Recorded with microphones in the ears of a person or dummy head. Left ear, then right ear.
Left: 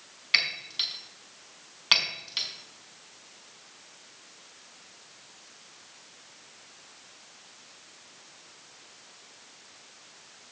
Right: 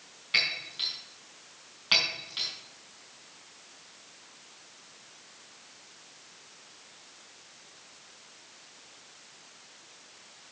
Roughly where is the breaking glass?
Left.